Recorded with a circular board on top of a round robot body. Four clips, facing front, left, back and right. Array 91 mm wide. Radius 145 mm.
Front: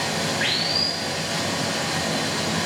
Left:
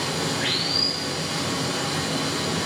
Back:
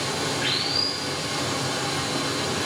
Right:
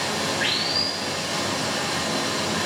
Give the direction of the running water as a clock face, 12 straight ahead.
1 o'clock.